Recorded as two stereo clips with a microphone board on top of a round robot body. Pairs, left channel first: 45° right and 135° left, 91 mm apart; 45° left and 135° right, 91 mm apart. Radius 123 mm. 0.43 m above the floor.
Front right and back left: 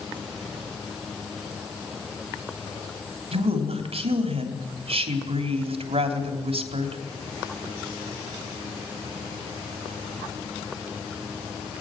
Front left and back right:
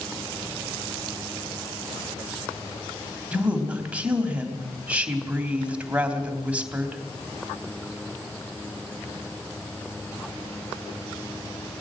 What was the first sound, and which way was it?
A woman speaking, 150° left.